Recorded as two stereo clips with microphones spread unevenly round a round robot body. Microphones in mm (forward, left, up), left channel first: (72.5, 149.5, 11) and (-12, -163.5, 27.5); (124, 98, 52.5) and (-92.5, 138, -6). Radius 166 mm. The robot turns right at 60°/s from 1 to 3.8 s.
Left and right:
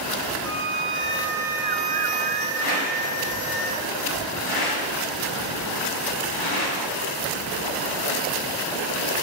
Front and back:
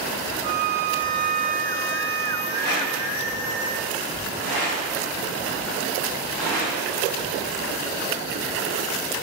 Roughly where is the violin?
Behind left.